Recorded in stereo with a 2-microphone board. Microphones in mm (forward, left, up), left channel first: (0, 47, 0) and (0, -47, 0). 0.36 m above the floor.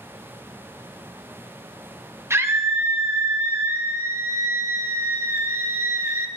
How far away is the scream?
About 2.5 m.